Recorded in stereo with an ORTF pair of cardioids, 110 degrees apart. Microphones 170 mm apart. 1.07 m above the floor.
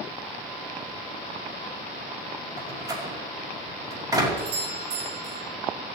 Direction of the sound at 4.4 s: 70° right.